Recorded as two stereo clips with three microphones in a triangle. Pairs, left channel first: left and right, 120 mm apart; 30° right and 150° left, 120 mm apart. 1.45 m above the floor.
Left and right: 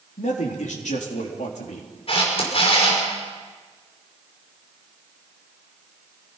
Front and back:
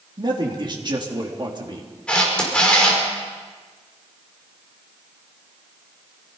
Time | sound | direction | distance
0.2 | a man speaking | 100° left | 3.5 m
2.1 | a camera shutter | 50° left | 5.5 m